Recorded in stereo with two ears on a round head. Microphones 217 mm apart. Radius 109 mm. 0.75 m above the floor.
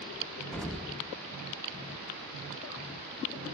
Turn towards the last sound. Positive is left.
turn(degrees=5)  # may be behind; listen again after turning